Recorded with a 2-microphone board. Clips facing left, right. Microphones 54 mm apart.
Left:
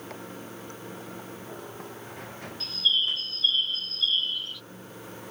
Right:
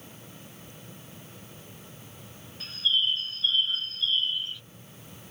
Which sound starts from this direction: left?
Running water, at 0.0 s.